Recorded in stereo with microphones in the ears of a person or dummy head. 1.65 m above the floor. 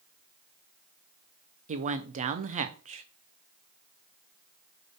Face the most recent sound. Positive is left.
turn(degrees=-40)  # may be behind; listen again after turning